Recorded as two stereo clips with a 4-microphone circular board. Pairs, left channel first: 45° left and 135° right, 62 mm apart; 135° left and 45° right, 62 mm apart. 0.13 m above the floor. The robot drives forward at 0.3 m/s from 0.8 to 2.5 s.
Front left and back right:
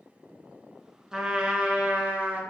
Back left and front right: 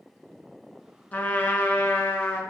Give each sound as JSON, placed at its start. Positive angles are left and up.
{"t": 1.1, "sound": "a trumpet", "azimuth_deg": 155, "distance_m": 0.6}